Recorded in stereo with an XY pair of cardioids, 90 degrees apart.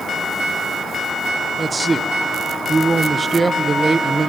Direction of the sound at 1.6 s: 30° right.